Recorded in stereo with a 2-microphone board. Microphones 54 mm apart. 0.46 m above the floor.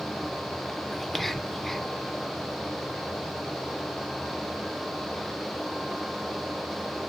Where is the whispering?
5° left (ahead or behind), 1.1 m.